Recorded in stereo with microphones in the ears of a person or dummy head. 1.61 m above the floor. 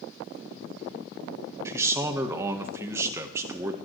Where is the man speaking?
15° right (ahead or behind), 1.3 m.